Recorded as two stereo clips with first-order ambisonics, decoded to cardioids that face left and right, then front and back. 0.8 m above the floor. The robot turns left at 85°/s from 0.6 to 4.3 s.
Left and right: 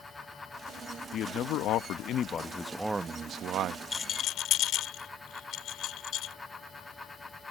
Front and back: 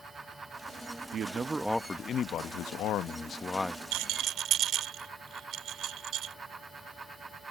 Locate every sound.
1.1 s a man speaking: 135° left; by 3.8 s 90° right
3.9 s a rattle: 165° left; by 6.3 s 135° left